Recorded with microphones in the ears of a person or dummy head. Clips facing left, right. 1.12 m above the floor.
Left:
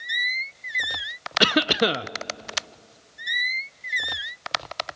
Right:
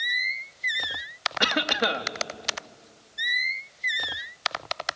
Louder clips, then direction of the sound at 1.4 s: Left 6 dB; 45° left (ahead or behind).